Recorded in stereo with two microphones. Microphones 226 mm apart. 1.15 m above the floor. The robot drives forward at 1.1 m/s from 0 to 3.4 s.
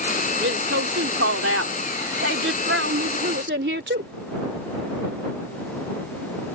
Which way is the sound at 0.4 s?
65° right (ahead or behind).